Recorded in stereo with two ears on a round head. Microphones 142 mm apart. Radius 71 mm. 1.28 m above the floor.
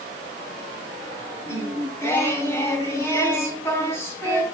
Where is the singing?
15° left (ahead or behind), 3.5 m.